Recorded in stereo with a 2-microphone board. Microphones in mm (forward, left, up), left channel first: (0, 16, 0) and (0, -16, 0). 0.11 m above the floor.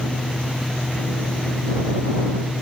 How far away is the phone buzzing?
I don't hear a phone buzzing.